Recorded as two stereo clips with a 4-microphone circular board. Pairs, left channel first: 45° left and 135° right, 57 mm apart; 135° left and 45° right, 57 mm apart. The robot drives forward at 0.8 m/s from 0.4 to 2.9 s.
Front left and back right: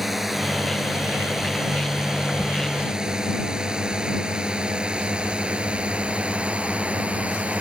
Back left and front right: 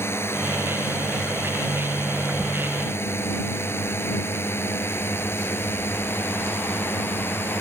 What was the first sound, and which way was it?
A drone, 140° left.